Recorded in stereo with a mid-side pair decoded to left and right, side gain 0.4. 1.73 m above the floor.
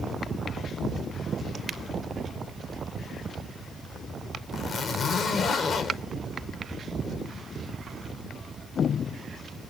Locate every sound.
4.5 s a zipper: 55° left, 2.5 m